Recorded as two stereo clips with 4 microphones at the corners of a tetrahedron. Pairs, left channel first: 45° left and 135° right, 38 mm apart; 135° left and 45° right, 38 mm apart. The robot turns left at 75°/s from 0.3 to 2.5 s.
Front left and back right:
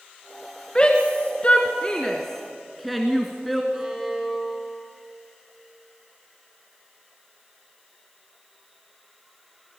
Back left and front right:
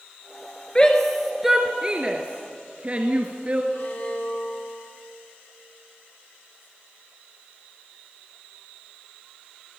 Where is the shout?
90° left, 1.6 m; by 3.6 s 45° right, 1.6 m.